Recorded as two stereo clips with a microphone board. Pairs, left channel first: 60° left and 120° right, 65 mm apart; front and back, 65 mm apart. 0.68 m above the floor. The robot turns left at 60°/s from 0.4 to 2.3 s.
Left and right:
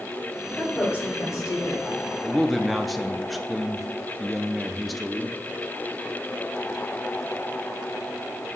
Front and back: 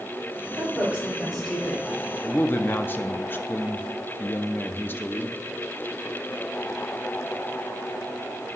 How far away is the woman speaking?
About 4 m.